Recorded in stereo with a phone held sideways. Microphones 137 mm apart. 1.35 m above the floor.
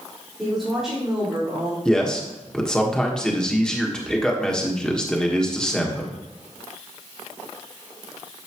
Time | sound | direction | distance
0.4 | a woman speaking | 5° right (ahead or behind) | 4.5 m
1.9 | a man speaking | 5° left (ahead or behind) | 1.4 m